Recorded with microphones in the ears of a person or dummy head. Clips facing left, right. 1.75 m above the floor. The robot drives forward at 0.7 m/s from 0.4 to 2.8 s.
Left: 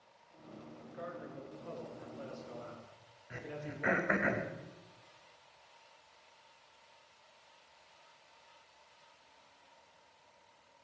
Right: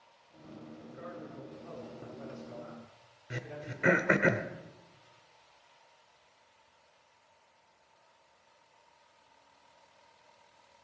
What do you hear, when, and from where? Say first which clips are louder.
0.8 s a man speaking: left 1 dB; 35° left (ahead or behind), 3.5 m; by 4.3 s 55° left (ahead or behind), 3 m
3.3 s throat clearing: right 1 dB; 45° right (ahead or behind), 1.1 m